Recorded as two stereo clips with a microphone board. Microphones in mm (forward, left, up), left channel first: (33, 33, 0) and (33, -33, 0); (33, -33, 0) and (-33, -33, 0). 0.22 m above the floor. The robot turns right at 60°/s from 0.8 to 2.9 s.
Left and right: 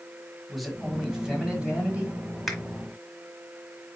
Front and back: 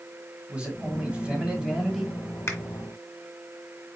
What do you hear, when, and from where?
0.5 s a man speaking: straight behind, 1.5 m; by 2.2 s 100° right, 1.5 m
2.5 s a finger snap: straight ahead, 1.5 m; by 2.6 s 5° left, 1.5 m